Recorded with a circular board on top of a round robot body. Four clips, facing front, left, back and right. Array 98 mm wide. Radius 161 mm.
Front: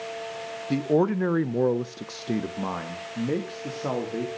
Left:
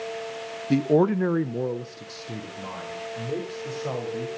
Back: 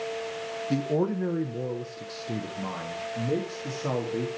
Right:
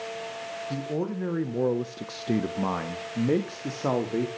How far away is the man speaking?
About 0.8 m.